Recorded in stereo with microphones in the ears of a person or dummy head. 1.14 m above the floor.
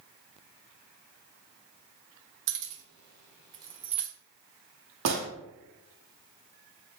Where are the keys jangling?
65° right (ahead or behind), 0.8 m; by 4.1 s centre (ahead or behind), 0.6 m.